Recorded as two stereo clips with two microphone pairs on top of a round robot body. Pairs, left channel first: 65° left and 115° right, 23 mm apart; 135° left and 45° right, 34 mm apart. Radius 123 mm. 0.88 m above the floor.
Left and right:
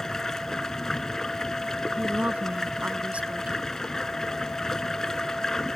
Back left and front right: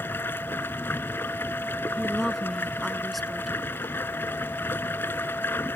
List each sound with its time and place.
0.0 s running water: 135° left
2.0 s a woman speaking: 140° right